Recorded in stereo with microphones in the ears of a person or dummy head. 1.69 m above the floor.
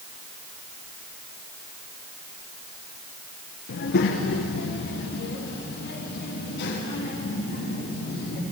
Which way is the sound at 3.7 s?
55° left (ahead or behind).